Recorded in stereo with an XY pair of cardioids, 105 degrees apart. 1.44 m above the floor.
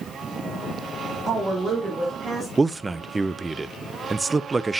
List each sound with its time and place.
1.3 s a woman speaking: 50° right, 2.5 m; by 2.5 s 40° right, 3 m
2.6 s a man speaking: 25° right, 0.5 m